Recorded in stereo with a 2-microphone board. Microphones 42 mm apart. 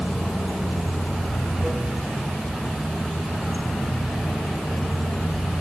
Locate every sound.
0.0 s running water: 10° right (ahead or behind), 1.4 m